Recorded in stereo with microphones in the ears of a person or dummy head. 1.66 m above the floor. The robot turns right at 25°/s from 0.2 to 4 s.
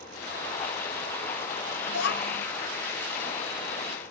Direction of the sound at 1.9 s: 70° left (ahead or behind).